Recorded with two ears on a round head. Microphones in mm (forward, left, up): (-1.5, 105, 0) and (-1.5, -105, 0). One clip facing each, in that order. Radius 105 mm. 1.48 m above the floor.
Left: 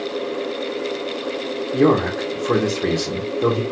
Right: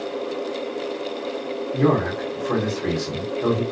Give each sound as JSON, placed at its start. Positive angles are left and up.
{"t": 1.7, "sound": "a man speaking", "side_deg": 50, "distance_m": 1.0}